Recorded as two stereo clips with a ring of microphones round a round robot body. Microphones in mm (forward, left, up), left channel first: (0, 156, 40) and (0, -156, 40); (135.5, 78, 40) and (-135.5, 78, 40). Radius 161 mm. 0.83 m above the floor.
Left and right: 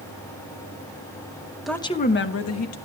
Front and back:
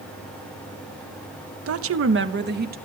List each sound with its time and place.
1.7 s a woman speaking: straight behind, 1.0 m; by 2.8 s 125° left, 2.0 m